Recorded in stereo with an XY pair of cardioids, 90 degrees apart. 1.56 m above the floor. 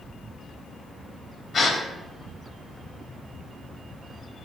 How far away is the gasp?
About 3.5 m.